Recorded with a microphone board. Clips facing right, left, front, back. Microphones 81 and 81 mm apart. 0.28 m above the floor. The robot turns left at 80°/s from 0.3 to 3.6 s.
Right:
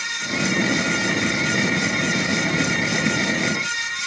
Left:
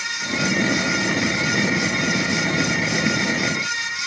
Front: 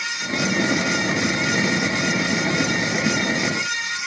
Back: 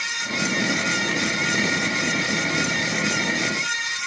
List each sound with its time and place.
Only background noise.